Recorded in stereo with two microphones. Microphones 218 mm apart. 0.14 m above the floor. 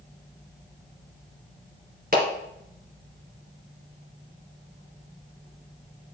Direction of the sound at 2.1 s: 45° right (ahead or behind).